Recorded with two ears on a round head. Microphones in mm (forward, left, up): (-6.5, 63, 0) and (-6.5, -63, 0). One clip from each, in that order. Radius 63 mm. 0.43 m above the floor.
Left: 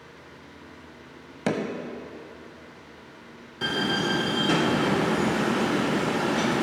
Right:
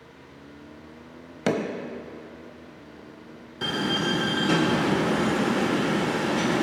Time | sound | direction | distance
1.5 | hammering | 10° right (ahead or behind) | 0.8 m
3.6 | a door slam | 5° left (ahead or behind) | 1.0 m